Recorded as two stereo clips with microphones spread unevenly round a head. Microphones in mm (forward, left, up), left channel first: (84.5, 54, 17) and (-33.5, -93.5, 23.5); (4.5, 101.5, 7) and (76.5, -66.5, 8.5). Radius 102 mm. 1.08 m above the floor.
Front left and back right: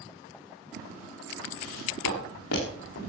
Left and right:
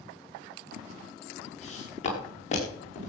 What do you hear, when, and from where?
1.6 s footsteps: 60° left, 8 m